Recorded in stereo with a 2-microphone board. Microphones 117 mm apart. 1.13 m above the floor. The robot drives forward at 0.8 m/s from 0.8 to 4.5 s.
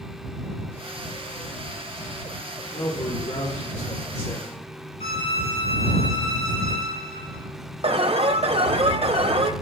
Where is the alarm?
60° right (ahead or behind), 0.8 m.